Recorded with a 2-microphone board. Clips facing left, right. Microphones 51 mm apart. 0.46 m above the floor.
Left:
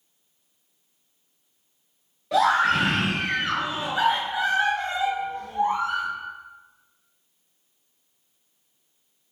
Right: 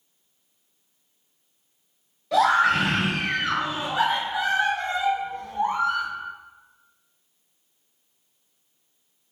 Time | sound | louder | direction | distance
2.3 | a scream | right 1 dB | 15° left (ahead or behind) | 1.2 m